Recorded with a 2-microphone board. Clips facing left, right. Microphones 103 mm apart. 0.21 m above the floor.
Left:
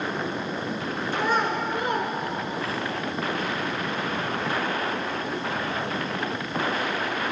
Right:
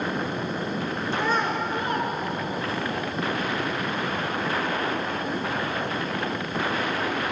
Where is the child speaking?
15° left (ahead or behind), 1.7 m; by 2.9 s 40° left (ahead or behind), 1.3 m.